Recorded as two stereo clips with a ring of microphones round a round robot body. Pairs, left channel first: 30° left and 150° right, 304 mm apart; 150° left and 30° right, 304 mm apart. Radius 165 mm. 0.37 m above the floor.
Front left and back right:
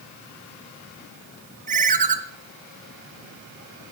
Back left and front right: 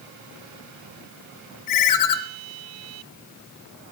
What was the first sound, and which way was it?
A ringtone, 145° left.